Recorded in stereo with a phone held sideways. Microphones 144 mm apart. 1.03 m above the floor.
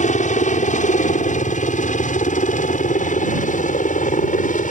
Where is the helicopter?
60° left (ahead or behind).